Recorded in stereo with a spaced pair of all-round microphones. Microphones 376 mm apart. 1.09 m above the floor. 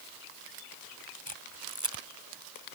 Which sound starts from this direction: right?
A camera shutter, at 1.3 s.